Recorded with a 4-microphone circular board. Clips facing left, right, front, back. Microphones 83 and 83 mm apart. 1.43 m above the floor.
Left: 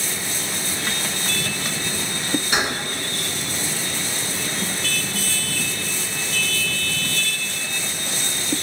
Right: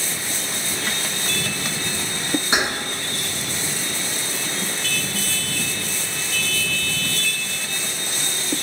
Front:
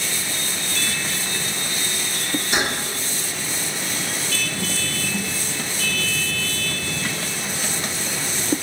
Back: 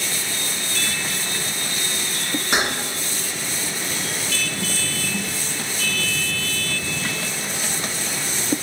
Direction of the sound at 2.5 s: 155° right.